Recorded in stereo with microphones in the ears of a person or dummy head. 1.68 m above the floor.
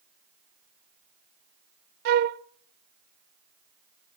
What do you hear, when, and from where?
2.0 s a flute: 55° right (ahead or behind), 0.5 m